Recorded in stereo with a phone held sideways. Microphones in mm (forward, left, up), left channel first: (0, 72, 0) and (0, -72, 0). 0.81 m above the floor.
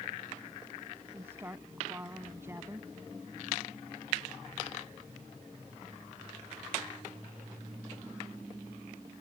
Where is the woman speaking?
15° right (ahead or behind).